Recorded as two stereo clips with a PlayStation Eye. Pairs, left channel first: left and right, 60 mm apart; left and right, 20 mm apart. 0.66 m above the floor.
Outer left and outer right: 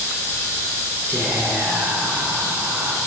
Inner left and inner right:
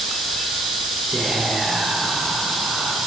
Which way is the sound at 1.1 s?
40° right (ahead or behind).